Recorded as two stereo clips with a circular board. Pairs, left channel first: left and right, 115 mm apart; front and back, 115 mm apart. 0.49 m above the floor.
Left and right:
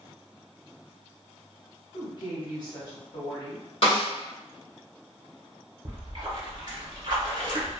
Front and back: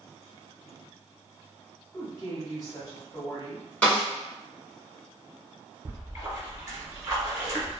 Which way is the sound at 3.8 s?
75° left.